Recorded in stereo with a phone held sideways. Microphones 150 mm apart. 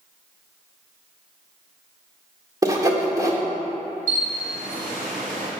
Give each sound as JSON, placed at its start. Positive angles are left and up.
{"t": 2.6, "sound": "sawing", "side_deg": -20, "distance_m": 1.6}
{"t": 4.1, "sound": "a camera shutter", "side_deg": -65, "distance_m": 3.0}